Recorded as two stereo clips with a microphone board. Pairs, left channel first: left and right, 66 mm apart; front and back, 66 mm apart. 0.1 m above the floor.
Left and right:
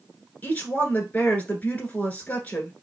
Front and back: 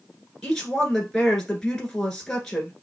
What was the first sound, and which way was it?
A woman speaking, 70° left.